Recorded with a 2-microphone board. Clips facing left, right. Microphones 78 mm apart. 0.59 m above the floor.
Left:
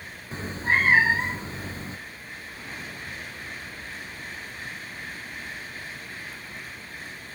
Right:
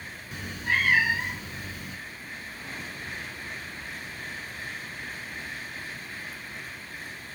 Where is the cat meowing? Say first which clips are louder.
Left 4 dB; 30° left (ahead or behind), 0.6 m.